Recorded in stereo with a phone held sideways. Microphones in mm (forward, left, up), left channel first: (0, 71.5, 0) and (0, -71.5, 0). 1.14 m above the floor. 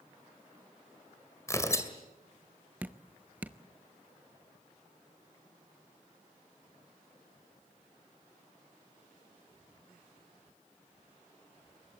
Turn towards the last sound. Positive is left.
turn(degrees=-10)  # may be behind; listen again after turning